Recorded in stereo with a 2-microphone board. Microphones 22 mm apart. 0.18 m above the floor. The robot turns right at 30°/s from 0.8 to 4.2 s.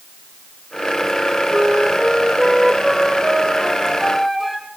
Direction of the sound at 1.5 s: 85° right.